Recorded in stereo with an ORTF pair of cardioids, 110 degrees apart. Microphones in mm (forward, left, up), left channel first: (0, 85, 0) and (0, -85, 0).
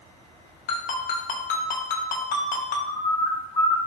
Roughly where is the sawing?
No sawing in this recording.